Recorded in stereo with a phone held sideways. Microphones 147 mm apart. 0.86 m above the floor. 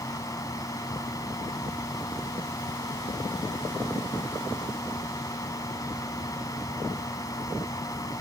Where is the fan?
25° left (ahead or behind).